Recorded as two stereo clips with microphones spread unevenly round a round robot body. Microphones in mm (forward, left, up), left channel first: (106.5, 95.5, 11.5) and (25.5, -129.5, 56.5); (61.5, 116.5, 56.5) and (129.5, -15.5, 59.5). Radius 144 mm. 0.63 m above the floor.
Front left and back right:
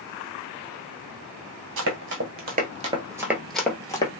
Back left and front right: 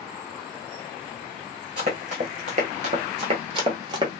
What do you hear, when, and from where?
1.8 s running footsteps: 115° right, 1.0 m; by 4.1 s 10° right, 0.9 m